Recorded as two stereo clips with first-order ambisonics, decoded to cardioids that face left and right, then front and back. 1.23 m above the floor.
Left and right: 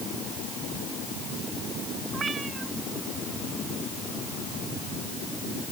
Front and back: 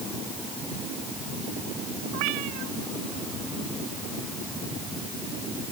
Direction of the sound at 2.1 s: 160° right.